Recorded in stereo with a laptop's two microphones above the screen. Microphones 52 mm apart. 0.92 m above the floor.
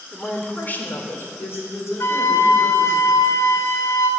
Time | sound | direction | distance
0.1 | a woman speaking | 15° left (ahead or behind) | 2.5 m
2.0 | a flute | 60° left (ahead or behind) | 0.9 m